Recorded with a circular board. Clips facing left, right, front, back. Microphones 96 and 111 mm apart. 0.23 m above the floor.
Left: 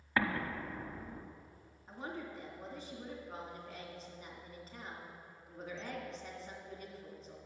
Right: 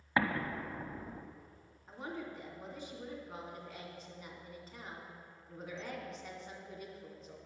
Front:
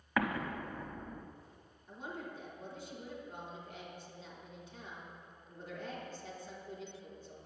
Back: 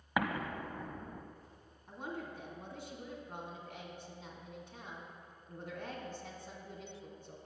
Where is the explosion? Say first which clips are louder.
Right 1 dB, front 1 dB; 130° right, 0.8 m.